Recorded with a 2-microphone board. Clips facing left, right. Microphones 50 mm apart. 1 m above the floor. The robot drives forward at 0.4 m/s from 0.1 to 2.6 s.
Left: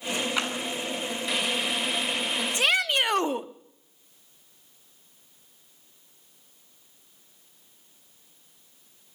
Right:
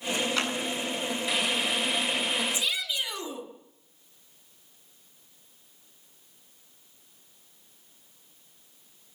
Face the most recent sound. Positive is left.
turn(degrees=60)  # may be behind; listen again after turning